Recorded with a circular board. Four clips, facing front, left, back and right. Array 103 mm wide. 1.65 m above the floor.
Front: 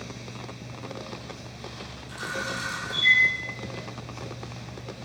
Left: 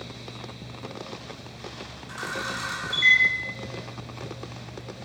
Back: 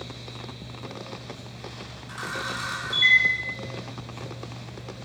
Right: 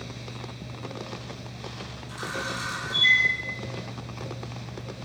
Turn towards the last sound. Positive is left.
turn(degrees=140)